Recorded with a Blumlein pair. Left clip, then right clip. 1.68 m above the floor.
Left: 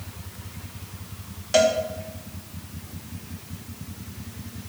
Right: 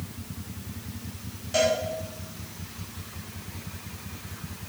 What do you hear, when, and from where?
1.5 s a cowbell: 65° left, 1.9 m